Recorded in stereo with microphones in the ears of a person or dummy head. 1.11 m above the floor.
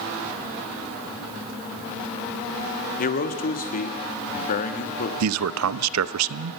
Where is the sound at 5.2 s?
85° right, 0.7 m.